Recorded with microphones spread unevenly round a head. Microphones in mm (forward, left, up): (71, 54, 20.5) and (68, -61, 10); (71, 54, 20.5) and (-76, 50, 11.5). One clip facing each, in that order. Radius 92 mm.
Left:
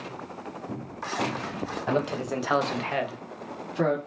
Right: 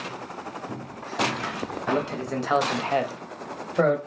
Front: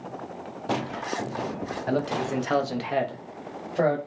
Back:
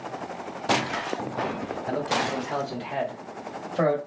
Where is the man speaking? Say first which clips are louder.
Even, front 1 dB; 20° left, 1.1 m; by 4.0 s 90° right, 0.9 m.